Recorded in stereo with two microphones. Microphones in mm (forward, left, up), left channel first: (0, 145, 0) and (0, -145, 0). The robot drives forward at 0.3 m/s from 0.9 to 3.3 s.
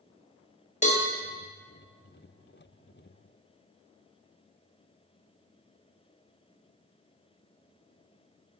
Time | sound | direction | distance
0.8 | a cowbell | 25° left (ahead or behind) | 0.6 m